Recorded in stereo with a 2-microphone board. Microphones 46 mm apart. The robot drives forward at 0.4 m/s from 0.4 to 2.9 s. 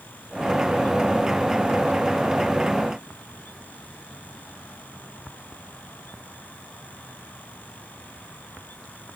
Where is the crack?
I don't hear a crack.